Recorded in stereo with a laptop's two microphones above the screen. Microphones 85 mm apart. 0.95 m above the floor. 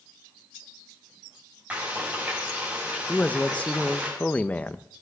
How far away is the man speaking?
About 0.6 m.